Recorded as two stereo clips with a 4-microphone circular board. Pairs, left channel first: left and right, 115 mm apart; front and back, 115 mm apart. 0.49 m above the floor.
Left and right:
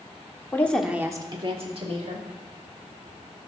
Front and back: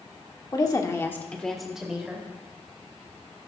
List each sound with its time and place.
0.5 s a woman speaking: 30° left, 1.2 m; by 2.2 s 100° right, 2.5 m